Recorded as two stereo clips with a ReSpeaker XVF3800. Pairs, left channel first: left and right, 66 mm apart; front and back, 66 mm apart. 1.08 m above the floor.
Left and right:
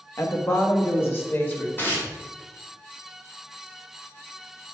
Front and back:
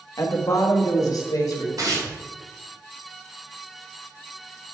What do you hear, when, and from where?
0.2 s a woman speaking: 40° left, 1.2 m; by 1.7 s 30° left, 2.5 m
1.8 s tearing paper: 150° left, 2 m